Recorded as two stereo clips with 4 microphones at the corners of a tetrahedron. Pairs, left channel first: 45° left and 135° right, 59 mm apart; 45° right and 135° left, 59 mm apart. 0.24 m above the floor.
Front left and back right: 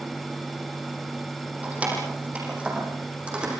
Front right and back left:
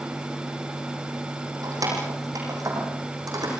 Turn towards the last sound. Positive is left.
turn(degrees=150)